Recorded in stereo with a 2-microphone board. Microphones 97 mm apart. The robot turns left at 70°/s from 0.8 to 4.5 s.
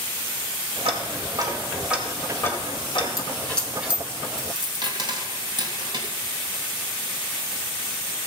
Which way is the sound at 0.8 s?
70° right (ahead or behind).